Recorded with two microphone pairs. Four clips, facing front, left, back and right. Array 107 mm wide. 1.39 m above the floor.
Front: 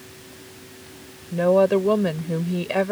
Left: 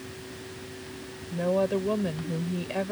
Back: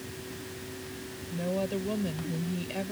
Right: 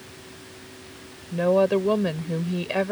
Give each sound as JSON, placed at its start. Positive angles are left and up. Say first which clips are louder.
{"t": 1.3, "sound": "a woman speaking", "louder": "right 6 dB, front 14 dB", "azimuth_deg": -25}